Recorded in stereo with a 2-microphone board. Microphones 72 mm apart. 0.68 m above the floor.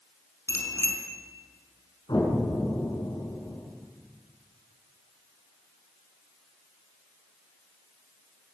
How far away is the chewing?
I don't hear chewing.